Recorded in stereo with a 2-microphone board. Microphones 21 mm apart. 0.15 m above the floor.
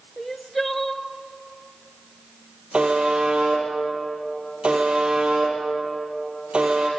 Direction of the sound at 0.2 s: 10° left (ahead or behind).